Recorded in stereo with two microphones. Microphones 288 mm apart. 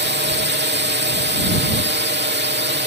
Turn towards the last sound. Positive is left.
turn(degrees=-35)  # may be behind; listen again after turning